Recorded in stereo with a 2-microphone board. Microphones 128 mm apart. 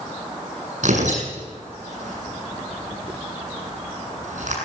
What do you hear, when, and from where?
0.8 s tearing paper: 70° right (ahead or behind), 8 m